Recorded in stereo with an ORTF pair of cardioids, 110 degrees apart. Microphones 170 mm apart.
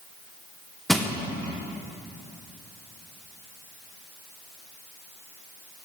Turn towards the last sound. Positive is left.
turn(degrees=0)